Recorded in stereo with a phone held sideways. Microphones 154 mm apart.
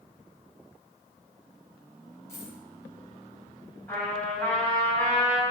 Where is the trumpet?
15° left (ahead or behind), 3.5 m.